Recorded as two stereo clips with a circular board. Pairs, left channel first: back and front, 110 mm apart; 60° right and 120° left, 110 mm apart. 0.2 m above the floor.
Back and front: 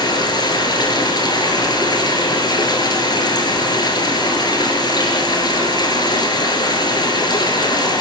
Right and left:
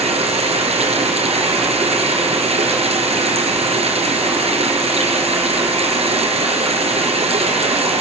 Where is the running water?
135° left, 4 m.